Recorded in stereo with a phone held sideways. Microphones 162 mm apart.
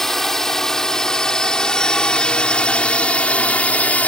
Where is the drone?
Centre (ahead or behind); by 4.1 s 10° left (ahead or behind).